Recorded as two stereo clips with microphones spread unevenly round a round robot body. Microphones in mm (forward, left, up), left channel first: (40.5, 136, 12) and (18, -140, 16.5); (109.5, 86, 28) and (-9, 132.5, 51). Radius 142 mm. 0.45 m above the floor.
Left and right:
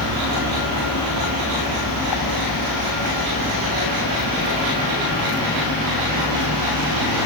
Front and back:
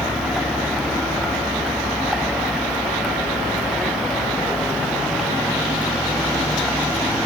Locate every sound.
0.0 s a vehicle: 70° left